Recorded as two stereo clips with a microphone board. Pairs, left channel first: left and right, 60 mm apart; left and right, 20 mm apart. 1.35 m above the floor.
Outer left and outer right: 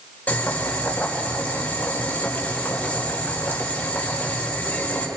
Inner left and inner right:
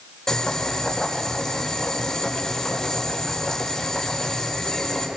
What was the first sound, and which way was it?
Boiling, 30° left (ahead or behind).